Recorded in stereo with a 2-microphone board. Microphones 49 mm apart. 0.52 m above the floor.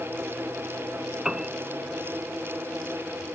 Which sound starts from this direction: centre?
A piano, at 1.2 s.